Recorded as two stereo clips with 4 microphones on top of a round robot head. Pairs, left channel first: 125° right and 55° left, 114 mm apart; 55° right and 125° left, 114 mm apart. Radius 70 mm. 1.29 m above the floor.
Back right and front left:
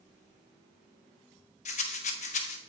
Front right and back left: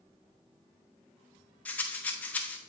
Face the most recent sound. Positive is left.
turn(degrees=-130)